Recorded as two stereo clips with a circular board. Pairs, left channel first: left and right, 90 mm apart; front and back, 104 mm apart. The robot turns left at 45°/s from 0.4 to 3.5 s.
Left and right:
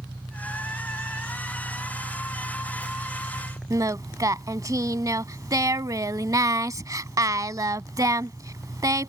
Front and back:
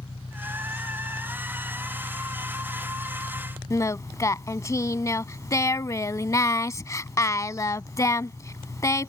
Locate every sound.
0.0 s an engine running: 45° right; by 9.1 s straight behind
3.7 s singing: 50° right